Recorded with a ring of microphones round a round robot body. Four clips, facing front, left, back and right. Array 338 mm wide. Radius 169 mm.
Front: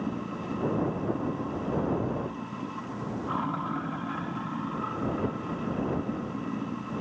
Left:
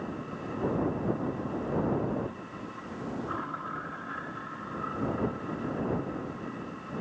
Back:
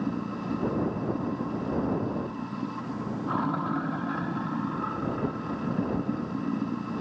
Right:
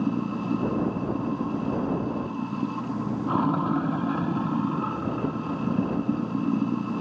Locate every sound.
0.0 s running water: 95° right